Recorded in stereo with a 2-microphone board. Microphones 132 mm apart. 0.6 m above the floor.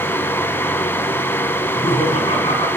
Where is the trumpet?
No trumpet in this recording.